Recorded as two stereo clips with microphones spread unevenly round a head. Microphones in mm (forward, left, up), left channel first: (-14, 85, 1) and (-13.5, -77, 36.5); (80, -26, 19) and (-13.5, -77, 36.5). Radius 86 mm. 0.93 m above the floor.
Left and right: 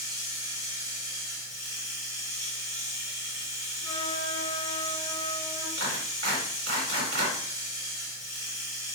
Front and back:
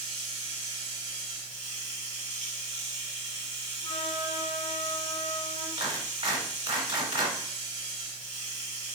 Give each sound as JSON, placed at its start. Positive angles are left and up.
{"t": 0.0, "sound": "running water", "azimuth_deg": -145, "distance_m": 1.5}
{"t": 3.8, "sound": "a flute", "azimuth_deg": 40, "distance_m": 0.8}
{"t": 5.8, "sound": "a clap", "azimuth_deg": -115, "distance_m": 2.5}